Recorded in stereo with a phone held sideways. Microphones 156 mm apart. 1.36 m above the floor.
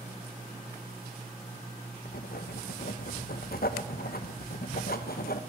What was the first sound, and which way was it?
Writing, 75° left (ahead or behind).